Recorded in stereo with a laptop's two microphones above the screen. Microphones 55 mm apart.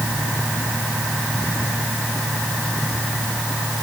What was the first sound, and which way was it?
Only background noise.